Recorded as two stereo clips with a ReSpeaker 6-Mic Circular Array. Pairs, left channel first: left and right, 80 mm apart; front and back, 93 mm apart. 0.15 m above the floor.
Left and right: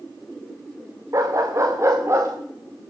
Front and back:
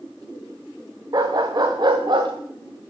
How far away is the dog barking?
About 6.5 m.